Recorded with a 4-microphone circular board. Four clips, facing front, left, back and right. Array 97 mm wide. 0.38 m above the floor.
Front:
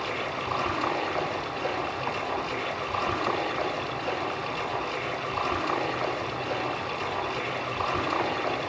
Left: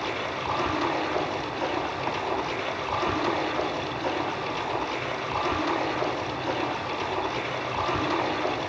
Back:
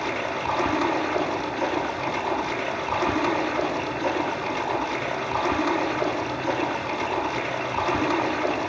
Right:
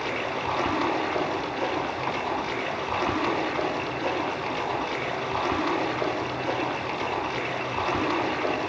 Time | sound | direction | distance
0.0 | running water | 145° right | 7 m